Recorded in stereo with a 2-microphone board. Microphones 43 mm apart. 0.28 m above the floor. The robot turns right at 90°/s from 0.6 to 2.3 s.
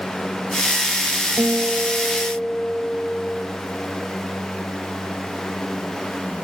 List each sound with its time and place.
1.4 s a guitar: 75° right, 2.5 m; by 3.5 s 10° left, 2.5 m